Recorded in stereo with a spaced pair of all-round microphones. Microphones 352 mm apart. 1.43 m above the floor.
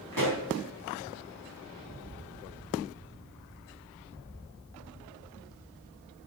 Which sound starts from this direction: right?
A pop, at 0.1 s.